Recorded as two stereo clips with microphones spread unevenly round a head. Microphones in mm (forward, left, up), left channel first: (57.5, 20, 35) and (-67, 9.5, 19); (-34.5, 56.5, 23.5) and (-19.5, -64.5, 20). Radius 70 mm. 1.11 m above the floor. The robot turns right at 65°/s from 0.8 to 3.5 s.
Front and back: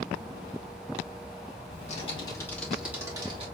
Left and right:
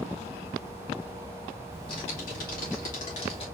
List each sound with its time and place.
1.7 s typing on a keyboard: 30° left, 2.5 m; by 3.5 s 145° left, 2.5 m